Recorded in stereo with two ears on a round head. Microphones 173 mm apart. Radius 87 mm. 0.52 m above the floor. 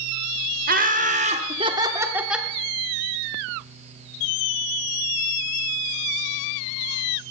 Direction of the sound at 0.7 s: 50° right (ahead or behind).